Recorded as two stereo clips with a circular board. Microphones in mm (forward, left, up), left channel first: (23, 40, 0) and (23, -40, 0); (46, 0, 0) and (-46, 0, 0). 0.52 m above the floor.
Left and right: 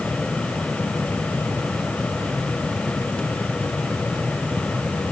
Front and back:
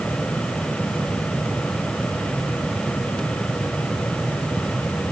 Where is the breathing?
No breathing in this recording.